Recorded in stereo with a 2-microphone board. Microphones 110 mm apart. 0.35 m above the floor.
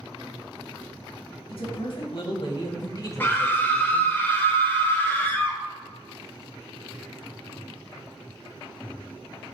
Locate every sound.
1.5 s a man speaking: 65° left (ahead or behind), 2 m; by 4.2 s centre (ahead or behind), 1.3 m
3.2 s a scream: 20° left (ahead or behind), 1.0 m